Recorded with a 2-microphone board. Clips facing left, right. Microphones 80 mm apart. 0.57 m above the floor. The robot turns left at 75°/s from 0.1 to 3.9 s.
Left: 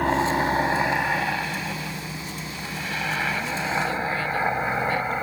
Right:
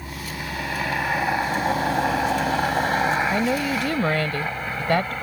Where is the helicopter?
65° left (ahead or behind); by 5.2 s 20° left (ahead or behind).